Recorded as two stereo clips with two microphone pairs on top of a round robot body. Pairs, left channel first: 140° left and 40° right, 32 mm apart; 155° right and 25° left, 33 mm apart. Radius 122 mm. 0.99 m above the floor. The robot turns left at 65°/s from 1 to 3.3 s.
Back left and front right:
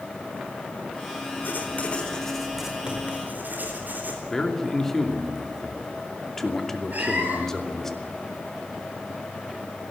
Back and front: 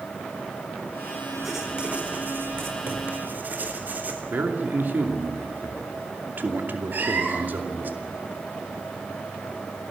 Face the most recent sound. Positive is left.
turn(degrees=-5)